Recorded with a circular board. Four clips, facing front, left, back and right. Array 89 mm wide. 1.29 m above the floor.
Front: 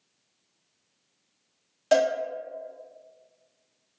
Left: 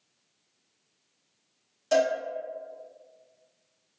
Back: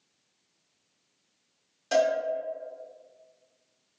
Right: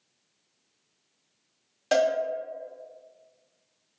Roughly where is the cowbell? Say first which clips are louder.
Right 1 dB, front 2 dB; ahead right.